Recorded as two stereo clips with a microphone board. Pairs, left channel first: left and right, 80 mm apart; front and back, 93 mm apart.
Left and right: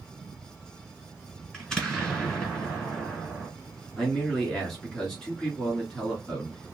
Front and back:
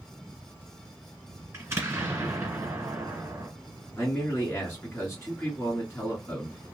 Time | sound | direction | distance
1.5 | an explosion | 165° left | 1.5 m
4.0 | a man speaking | 15° left | 1.5 m